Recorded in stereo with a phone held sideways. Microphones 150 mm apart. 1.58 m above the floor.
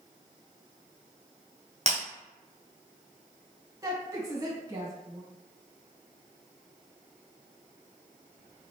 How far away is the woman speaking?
About 1.7 m.